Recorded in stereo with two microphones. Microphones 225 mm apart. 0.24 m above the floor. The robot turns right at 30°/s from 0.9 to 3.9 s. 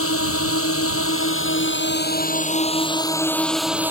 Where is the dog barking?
I don't hear a dog barking.